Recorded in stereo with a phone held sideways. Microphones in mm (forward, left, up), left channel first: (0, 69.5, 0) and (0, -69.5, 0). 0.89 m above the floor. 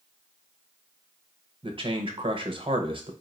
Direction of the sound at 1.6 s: 40° right (ahead or behind).